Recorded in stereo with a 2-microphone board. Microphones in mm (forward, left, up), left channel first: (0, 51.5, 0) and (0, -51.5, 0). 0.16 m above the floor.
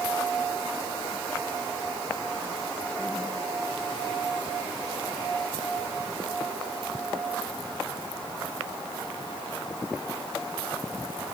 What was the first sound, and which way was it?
Only background noise.